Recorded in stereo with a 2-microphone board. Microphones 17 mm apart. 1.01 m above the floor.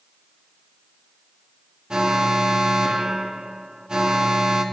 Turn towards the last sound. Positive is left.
turn(degrees=-60)  # may be behind; listen again after turning